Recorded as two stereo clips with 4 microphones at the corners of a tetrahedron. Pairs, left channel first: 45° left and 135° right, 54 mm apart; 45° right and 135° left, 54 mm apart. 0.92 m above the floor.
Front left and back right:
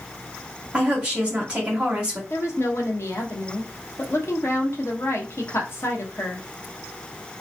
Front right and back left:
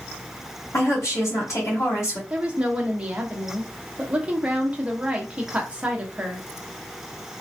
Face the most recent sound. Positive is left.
turn(degrees=70)